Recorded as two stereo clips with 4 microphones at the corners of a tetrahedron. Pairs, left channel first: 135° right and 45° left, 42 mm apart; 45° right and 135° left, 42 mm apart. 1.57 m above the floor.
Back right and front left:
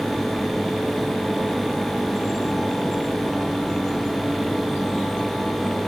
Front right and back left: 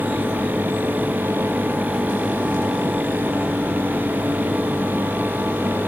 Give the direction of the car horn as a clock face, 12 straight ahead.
No car horn in this recording.